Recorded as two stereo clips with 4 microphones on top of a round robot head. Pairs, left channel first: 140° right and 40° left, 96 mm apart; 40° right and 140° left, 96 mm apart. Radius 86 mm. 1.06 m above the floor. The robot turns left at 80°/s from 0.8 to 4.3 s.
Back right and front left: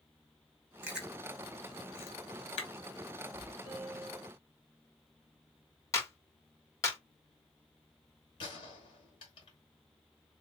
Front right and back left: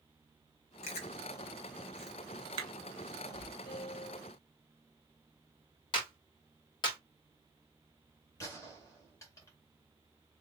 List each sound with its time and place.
0.8 s chewing: 35° right, 0.8 m; by 3.5 s 110° left, 0.8 m
3.6 s a piano: 15° right, 2 m; by 4.3 s 65° right, 2 m
5.9 s a clap: 80° right, 2.0 m
8.4 s a gunshot: 100° right, 1.8 m